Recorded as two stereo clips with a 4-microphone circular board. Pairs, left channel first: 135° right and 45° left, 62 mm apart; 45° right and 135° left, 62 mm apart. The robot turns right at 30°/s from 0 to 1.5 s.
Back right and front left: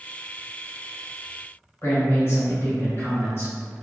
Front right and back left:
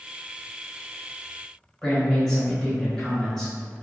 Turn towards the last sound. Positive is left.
turn(degrees=-130)